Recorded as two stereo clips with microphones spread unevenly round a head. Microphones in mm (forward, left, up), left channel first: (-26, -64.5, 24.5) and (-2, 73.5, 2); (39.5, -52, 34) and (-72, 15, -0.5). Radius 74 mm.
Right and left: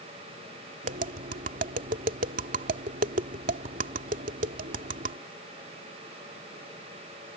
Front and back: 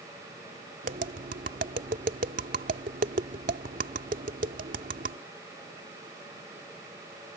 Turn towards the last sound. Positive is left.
turn(degrees=110)